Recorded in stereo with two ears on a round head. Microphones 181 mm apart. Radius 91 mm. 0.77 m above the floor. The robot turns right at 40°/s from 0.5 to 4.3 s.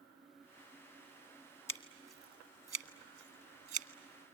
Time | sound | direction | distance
1.7 | scissors | 15° left (ahead or behind) | 1.3 m